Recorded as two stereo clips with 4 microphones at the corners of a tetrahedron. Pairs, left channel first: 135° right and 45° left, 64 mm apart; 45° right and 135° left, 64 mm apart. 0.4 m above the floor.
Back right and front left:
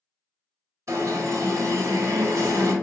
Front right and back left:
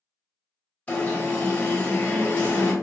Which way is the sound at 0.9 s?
20° left.